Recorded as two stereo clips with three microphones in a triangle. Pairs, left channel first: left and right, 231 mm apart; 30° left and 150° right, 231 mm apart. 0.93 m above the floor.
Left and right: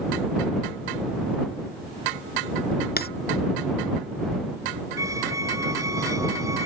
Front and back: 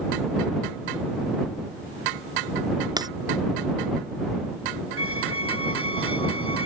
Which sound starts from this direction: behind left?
Breaking glass, at 3.0 s.